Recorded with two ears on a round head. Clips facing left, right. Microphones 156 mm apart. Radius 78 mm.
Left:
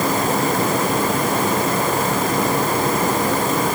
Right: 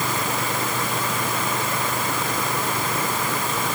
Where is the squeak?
I don't hear a squeak.